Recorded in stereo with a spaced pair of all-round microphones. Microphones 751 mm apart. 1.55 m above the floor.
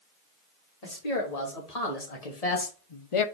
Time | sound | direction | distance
0.8 | a man speaking | 55° left (ahead or behind) | 3 m